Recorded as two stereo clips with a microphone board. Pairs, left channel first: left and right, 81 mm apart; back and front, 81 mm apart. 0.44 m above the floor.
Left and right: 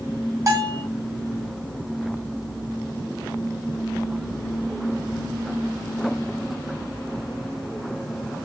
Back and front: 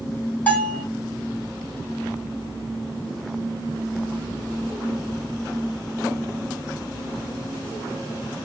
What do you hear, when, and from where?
0.5 s a bell: 120° right, 1.5 m